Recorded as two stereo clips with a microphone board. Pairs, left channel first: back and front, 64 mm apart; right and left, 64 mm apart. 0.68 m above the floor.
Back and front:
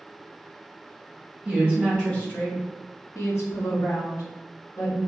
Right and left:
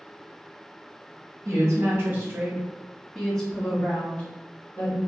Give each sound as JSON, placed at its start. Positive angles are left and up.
{"t": 1.4, "sound": "a woman speaking", "azimuth_deg": 80, "distance_m": 0.8}